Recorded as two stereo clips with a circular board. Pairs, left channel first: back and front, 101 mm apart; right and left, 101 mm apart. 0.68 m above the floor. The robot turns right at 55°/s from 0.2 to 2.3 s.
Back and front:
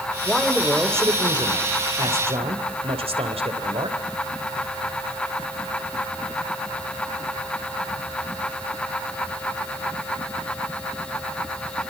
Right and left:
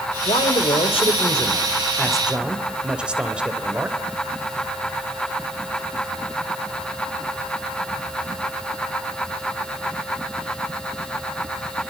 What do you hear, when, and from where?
0.2 s a man speaking: 105° right, 2.5 m; by 4.0 s 10° left, 2.5 m